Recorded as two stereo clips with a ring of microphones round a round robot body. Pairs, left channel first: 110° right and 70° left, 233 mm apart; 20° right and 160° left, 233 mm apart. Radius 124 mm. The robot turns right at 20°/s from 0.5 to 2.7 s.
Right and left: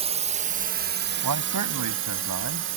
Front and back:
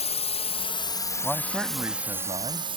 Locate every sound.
0.0 s a drone: 20° left; by 2.8 s 90° left
1.2 s a man speaking: 65° left; by 2.7 s 95° left